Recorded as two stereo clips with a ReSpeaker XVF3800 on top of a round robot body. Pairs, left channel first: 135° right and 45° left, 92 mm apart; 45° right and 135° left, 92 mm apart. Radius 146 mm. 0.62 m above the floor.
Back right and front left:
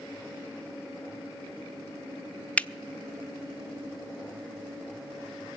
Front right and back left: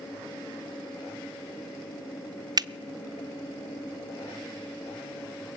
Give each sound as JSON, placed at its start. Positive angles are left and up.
{"t": 2.6, "sound": "a finger snap", "azimuth_deg": 155, "distance_m": 0.6}